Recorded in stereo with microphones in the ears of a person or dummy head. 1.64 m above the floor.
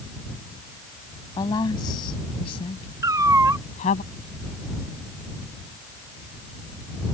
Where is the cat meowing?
20° right (ahead or behind).